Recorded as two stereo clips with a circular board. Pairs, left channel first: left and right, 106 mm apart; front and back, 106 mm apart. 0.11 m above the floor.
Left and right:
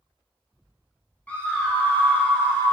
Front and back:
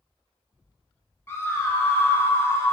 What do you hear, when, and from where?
1.3 s a scream: 30° left, 1.1 m